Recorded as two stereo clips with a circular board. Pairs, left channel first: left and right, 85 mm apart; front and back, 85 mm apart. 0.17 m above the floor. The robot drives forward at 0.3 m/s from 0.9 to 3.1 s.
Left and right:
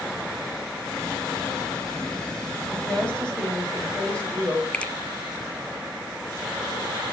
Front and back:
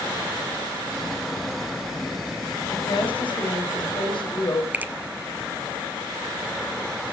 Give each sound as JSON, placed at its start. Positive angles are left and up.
{"t": 2.7, "sound": "a woman speaking", "azimuth_deg": 10, "distance_m": 7.0}
{"t": 4.7, "sound": "a finger snap", "azimuth_deg": 145, "distance_m": 1.1}